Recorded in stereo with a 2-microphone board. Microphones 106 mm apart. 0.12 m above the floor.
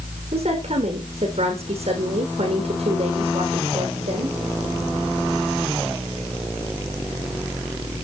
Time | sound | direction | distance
0.3 | a woman speaking | 65° right (ahead or behind) | 6 m